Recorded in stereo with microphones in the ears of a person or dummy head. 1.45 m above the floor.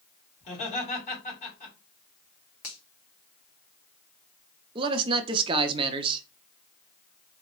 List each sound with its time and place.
0.4 s laughter: 45° left (ahead or behind), 2.5 m
2.6 s a finger snap: 65° left (ahead or behind), 1.1 m
4.8 s a man speaking: 30° right (ahead or behind), 0.5 m